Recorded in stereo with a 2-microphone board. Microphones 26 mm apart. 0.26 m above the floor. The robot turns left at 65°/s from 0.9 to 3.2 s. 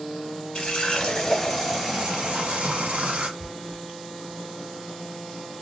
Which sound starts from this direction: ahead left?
A running tap, at 0.6 s.